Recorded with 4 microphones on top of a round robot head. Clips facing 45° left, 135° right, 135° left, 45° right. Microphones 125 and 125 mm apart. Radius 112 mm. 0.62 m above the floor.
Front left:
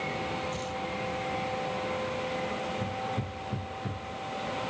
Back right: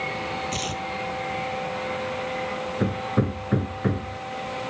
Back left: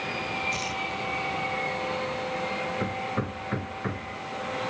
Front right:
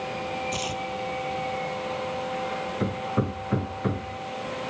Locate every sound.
0.5 s tearing paper: 120° right
2.8 s hammering: 120° right